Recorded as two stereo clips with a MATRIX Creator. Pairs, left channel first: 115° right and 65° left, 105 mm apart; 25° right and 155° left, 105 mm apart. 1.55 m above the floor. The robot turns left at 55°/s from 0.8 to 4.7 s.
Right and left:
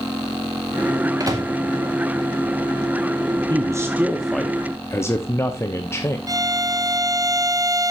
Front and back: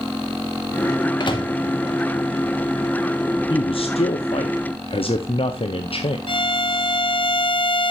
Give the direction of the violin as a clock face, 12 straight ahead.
12 o'clock.